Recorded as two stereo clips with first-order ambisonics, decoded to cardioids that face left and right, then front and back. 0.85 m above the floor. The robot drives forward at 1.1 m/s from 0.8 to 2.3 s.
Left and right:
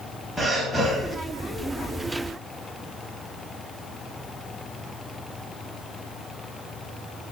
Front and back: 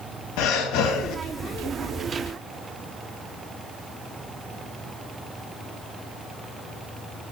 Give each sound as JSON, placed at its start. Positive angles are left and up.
{"t": 0.4, "sound": "breathing", "azimuth_deg": 0, "distance_m": 1.0}